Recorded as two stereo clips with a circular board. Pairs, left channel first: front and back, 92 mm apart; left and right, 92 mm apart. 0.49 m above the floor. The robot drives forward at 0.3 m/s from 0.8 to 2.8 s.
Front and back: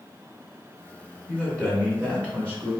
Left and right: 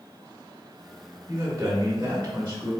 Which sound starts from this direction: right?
A man speaking, at 1.3 s.